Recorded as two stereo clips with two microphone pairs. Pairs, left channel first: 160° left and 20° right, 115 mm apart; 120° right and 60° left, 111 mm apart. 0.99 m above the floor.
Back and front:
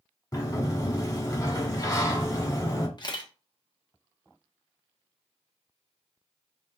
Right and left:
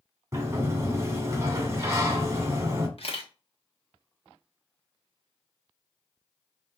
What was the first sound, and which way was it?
A sliding door, 115° left.